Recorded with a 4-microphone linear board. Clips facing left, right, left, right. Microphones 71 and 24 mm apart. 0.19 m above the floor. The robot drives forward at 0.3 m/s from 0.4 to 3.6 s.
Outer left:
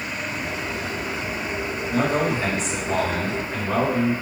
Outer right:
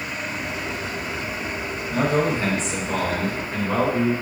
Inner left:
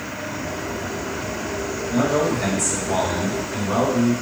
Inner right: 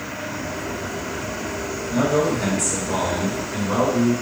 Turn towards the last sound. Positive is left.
turn(degrees=0)  # may be behind; listen again after turning